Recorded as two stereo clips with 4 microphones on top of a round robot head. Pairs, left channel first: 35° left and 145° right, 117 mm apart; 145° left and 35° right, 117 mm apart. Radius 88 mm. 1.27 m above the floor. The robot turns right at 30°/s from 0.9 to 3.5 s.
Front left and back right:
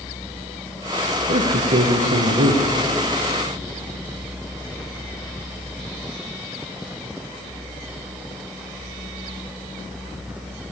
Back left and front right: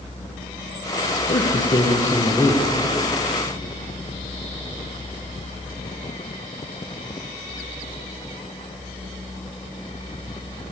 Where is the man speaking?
165° right, 1.1 m; by 2.6 s 125° right, 1.1 m.